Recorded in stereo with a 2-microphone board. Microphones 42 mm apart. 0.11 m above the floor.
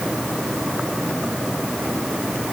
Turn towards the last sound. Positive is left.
No sound to turn to.